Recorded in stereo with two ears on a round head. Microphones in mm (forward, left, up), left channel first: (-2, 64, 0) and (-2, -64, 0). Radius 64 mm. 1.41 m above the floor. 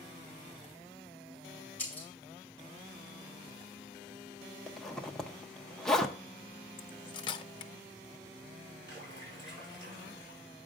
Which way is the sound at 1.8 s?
10° left (ahead or behind).